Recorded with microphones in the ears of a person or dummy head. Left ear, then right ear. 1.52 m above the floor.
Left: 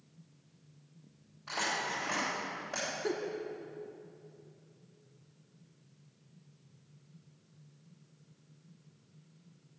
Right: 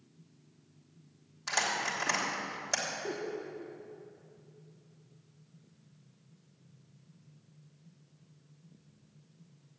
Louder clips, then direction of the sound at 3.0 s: Left 2 dB; 70° left (ahead or behind).